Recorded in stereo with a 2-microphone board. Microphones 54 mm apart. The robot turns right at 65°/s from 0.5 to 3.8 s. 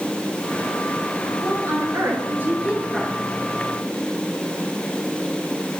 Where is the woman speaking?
105° right, 5 m; by 3.2 s 10° left, 5 m.